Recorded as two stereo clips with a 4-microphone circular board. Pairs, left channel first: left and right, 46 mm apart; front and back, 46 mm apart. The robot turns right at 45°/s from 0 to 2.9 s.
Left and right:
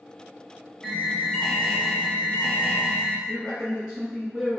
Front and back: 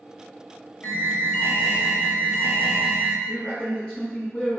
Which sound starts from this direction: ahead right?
A man speaking, at 3.3 s.